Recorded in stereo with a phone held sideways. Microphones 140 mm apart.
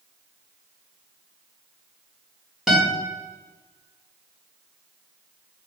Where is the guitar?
5° right (ahead or behind), 3 m.